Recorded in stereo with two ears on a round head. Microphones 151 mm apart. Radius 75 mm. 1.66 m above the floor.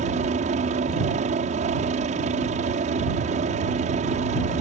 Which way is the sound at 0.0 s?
45° right (ahead or behind).